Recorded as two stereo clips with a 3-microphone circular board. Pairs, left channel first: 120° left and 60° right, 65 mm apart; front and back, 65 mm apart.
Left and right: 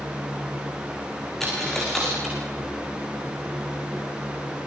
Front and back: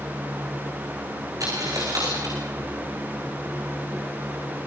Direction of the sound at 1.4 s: 155° right.